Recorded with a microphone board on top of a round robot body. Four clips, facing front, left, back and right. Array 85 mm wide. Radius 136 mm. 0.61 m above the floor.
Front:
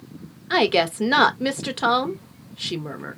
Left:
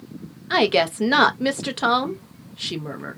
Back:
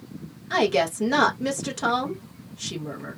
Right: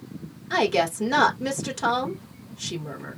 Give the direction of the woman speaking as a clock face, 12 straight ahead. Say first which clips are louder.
Left 3 dB, front 2 dB; 10 o'clock.